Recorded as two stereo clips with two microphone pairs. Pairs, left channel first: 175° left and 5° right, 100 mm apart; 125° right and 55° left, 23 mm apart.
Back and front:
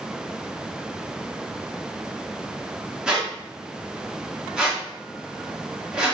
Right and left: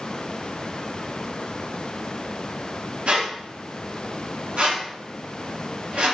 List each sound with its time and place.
3.1 s a squeak: 75° left, 0.9 m